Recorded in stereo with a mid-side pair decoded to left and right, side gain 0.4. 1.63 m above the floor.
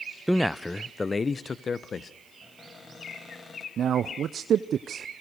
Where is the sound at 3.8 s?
65° right, 0.7 m.